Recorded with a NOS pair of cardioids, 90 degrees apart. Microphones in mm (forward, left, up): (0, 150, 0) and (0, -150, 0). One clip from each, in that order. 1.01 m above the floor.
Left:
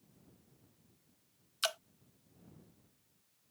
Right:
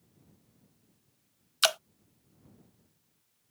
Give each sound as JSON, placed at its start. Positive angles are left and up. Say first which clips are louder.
{"t": 1.6, "sound": "dripping", "louder": "right 10 dB", "azimuth_deg": -45}